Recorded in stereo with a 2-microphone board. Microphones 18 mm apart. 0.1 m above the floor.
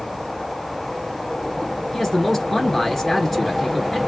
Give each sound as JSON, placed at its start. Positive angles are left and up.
{"t": 1.9, "sound": "a man speaking", "side_deg": 15, "distance_m": 1.7}